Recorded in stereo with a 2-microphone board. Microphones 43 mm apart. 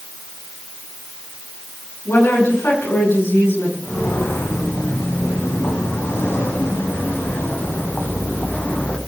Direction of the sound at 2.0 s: 85° left.